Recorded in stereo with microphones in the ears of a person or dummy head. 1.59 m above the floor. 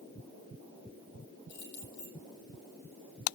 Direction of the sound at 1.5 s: 65° left (ahead or behind).